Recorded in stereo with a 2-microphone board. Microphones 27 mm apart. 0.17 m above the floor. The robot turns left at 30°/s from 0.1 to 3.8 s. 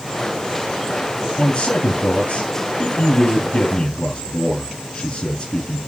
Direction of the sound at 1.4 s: 120° left.